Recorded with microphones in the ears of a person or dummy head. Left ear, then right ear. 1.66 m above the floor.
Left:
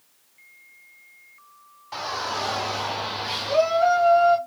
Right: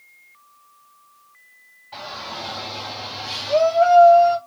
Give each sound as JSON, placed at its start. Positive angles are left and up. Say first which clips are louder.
{"t": 1.9, "sound": "a shout", "louder": "left 4 dB", "side_deg": 75, "distance_m": 1.1}